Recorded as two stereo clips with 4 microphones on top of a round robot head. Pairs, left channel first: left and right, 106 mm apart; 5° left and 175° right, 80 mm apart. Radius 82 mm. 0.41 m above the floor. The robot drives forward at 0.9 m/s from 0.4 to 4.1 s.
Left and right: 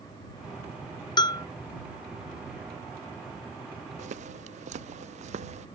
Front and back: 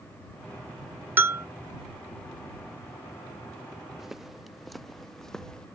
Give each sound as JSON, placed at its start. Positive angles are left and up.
{"t": 1.2, "sound": "a bell", "azimuth_deg": 125}
{"t": 4.0, "sound": "footsteps", "azimuth_deg": -85}